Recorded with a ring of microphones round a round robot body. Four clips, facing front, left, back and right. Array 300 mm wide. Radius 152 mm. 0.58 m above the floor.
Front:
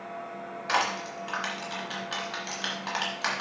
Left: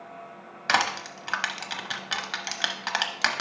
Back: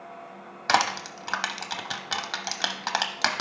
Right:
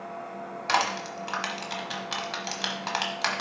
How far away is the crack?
I don't hear a crack.